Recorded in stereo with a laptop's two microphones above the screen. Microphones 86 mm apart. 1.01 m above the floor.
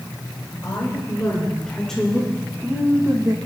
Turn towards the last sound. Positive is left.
turn(degrees=-50)  # may be behind; listen again after turning